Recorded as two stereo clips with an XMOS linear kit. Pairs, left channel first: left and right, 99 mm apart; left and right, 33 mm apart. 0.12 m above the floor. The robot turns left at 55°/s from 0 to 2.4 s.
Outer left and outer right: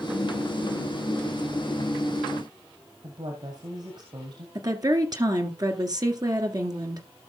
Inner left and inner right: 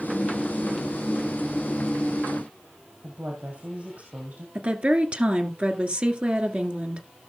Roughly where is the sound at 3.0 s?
Right.